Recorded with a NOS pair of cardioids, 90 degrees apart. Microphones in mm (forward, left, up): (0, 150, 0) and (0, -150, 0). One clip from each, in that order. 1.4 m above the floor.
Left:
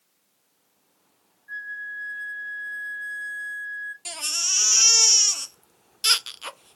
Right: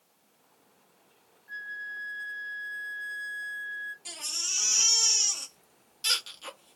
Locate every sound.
1.5 s a flute: 10° right, 0.8 m
4.0 s a baby crying: 35° left, 0.5 m